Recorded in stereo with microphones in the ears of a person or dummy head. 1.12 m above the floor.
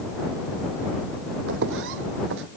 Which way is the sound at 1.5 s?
70° right (ahead or behind).